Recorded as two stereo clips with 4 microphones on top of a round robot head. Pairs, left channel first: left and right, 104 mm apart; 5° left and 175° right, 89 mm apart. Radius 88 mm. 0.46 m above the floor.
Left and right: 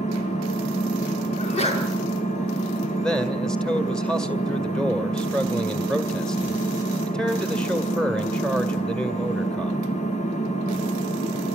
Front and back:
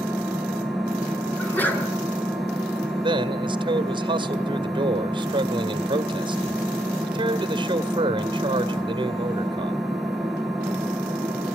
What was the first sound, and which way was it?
An engine running, 95° left.